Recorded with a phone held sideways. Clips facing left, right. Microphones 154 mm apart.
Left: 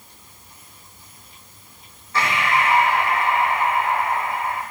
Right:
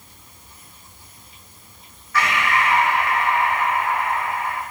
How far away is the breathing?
About 0.9 m.